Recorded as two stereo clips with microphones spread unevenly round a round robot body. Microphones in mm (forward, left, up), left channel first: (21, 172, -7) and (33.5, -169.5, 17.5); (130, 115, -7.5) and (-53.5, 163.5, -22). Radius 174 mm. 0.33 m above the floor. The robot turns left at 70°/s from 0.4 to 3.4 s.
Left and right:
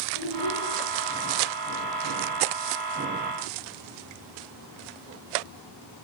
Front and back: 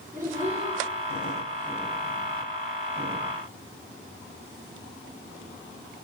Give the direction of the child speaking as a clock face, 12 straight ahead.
9 o'clock.